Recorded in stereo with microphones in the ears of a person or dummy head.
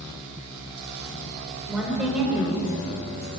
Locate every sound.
1.7 s a woman speaking: 10° right (ahead or behind), 4.5 m